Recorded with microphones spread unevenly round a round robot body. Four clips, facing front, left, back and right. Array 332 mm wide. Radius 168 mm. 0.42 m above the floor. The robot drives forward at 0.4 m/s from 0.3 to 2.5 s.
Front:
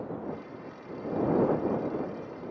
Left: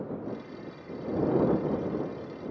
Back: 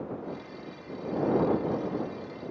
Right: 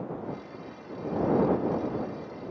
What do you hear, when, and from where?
Only background noise.